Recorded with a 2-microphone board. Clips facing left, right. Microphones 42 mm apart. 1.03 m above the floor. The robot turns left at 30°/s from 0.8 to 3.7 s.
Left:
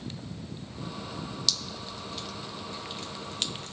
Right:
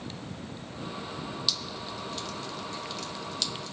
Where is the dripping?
15° right (ahead or behind), 0.7 m; by 3.7 s 50° left (ahead or behind), 0.7 m.